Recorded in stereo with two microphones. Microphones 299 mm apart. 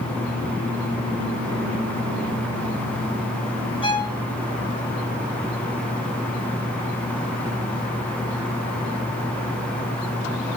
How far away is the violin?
About 1.8 m.